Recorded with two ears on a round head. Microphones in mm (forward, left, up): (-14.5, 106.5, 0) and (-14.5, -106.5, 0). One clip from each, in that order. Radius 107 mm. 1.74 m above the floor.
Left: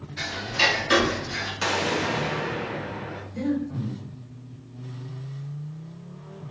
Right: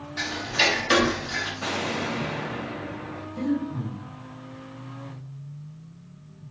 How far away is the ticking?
About 0.6 m.